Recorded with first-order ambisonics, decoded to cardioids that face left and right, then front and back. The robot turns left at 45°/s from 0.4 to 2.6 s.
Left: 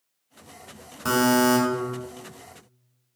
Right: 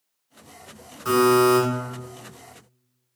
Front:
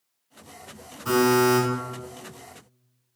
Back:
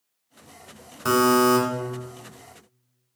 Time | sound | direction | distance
1.1 | a buzzer | 145° left | 1.1 m